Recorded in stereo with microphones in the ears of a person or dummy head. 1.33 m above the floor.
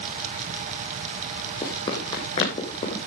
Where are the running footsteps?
25° left (ahead or behind), 3 m; by 3.1 s 35° left (ahead or behind), 3.5 m.